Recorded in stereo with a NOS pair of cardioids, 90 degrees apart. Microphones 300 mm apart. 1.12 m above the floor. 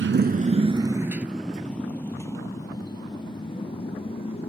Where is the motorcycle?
40° right; by 4.5 s 20° left.